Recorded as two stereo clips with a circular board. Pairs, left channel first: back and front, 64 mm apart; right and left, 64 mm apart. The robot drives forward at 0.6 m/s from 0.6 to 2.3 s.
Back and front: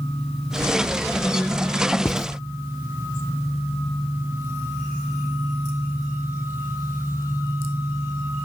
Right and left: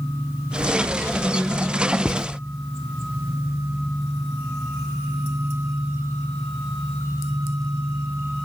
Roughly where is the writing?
Behind.